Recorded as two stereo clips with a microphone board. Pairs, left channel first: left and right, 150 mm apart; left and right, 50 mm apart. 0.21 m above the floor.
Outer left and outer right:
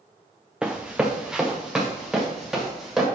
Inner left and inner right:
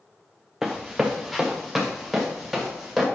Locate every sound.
0.6 s running footsteps: 5° right (ahead or behind), 0.8 m